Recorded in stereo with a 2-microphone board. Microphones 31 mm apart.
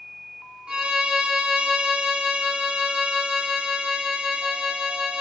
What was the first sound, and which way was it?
A violin, 35° right (ahead or behind).